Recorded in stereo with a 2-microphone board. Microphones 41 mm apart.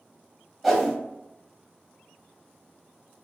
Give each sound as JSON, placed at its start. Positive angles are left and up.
{"t": 0.6, "sound": "a whoosh", "side_deg": 0, "distance_m": 0.6}